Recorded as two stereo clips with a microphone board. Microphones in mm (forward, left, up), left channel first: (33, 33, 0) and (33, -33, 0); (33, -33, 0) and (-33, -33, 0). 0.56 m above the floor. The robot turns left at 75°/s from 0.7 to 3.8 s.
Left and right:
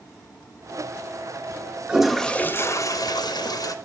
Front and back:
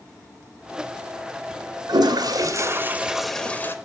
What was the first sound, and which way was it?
A toilet flushing, 165° right.